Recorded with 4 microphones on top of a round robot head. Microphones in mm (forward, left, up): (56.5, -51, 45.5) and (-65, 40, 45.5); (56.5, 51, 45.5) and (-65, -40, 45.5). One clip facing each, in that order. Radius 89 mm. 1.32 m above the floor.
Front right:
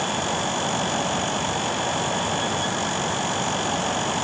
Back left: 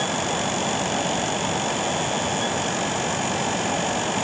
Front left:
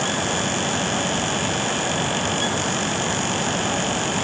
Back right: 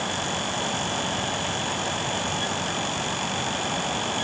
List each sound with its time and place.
Only background noise.